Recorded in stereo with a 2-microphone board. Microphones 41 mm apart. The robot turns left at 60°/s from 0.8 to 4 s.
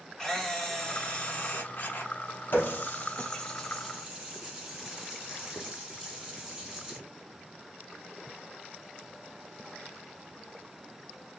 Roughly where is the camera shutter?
Behind.